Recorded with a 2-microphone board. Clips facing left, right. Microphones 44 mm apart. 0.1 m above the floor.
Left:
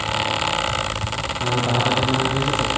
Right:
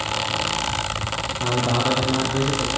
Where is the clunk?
No clunk in this recording.